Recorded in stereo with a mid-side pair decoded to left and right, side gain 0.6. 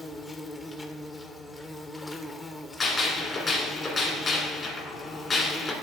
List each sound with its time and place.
0.0 s an insect: 20° left, 0.8 m
2.8 s a gunshot: 30° left, 2.5 m